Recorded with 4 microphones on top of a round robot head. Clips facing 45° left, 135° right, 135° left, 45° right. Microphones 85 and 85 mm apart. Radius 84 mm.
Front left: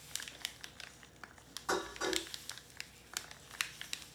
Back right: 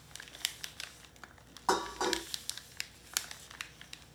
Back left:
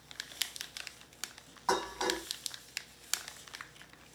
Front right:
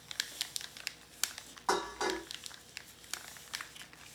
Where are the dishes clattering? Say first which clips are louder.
Back right 5 dB, back left 1 dB; 140° right, 2 m.